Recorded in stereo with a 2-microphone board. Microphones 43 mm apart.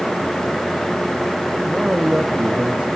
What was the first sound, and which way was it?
A man speaking, 20° right (ahead or behind).